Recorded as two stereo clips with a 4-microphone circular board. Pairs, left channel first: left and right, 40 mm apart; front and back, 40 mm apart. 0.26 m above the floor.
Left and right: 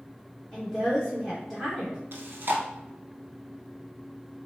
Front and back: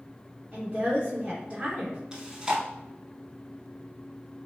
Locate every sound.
0.5 s a woman speaking: 170° left, 1.0 m
2.1 s chewing: 115° right, 0.6 m